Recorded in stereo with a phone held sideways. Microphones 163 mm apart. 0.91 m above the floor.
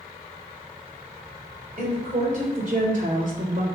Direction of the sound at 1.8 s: 50° right (ahead or behind).